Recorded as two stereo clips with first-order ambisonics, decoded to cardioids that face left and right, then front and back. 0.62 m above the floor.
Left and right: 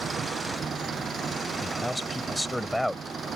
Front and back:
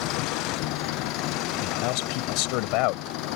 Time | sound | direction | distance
0.0 | an engine running | 20° right | ?
1.6 | a man speaking | straight ahead | ?